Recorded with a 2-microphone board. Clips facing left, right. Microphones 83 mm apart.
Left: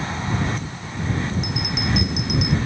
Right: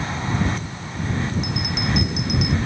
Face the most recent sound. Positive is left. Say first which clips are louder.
# even
turn(degrees=0)  # may be behind; listen again after turning